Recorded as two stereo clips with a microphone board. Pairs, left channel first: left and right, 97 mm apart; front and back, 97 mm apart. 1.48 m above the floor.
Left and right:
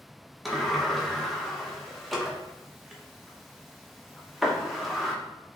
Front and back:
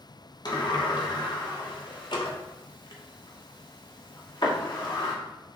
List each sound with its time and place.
0.5 s a sliding door: straight ahead, 0.8 m